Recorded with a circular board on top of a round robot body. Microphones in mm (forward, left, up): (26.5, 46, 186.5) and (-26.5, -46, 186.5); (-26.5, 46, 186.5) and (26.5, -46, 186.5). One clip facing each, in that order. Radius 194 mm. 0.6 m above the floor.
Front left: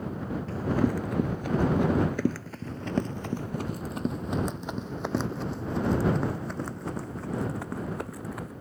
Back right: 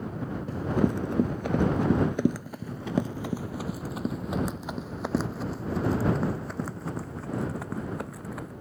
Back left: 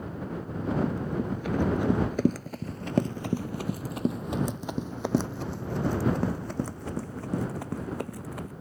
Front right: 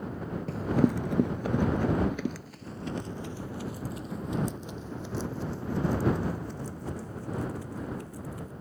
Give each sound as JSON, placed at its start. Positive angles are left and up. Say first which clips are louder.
{"t": 0.5, "sound": "running footsteps", "louder": "even, front right 3 dB", "azimuth_deg": -45}